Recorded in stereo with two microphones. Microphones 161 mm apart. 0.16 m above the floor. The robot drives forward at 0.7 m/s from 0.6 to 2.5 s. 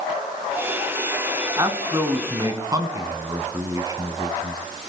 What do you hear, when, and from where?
1.6 s a man speaking: 25° right (ahead or behind), 1.3 m